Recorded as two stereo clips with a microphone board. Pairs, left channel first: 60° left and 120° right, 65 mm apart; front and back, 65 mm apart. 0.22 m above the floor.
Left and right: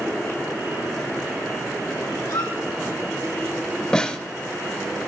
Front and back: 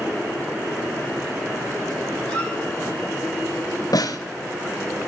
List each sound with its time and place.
2.2 s a squeak: 75° left, 4 m
3.9 s a snare drum: 20° right, 0.7 m